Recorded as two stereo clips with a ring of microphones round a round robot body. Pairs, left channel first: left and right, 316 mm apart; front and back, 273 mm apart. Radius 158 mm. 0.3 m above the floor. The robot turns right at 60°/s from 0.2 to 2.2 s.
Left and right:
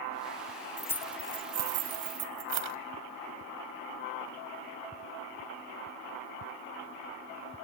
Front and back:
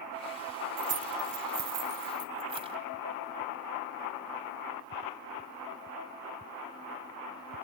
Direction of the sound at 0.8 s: 165° left.